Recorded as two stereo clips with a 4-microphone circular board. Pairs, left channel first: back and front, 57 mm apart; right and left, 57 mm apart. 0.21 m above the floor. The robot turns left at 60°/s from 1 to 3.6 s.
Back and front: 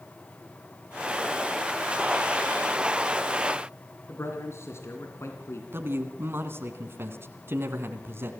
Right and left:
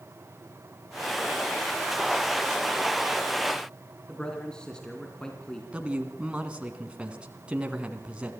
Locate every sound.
4.1 s a man speaking: 160° right, 2.5 m
5.7 s a man speaking: 25° left, 2 m